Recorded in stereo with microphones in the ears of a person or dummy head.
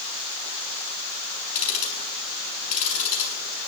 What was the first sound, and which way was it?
Ticking, 50° left (ahead or behind).